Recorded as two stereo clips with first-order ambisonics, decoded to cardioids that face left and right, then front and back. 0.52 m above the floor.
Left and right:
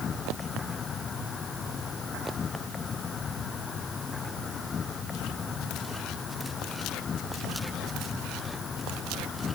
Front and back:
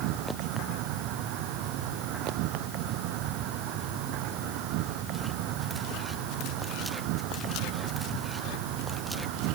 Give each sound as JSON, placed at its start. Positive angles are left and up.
{"t": 0.0, "sound": "an insect", "azimuth_deg": 155}